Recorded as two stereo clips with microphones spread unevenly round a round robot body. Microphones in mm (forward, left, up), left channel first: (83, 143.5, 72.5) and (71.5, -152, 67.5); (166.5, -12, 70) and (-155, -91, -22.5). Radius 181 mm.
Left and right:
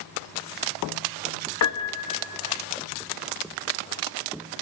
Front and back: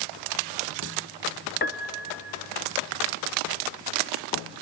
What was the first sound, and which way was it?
A piano, 85° left.